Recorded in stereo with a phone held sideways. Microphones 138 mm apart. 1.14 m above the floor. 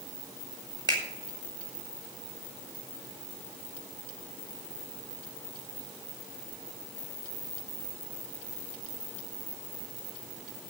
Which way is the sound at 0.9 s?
30° right (ahead or behind).